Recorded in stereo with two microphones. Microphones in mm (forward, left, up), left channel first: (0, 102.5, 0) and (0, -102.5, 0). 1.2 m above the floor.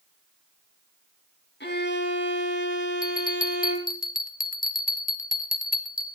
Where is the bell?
45° left (ahead or behind), 0.9 m.